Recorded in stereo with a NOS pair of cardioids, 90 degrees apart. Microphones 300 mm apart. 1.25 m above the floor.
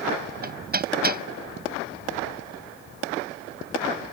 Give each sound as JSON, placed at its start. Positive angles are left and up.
{"t": 0.4, "sound": "hammering", "azimuth_deg": -30}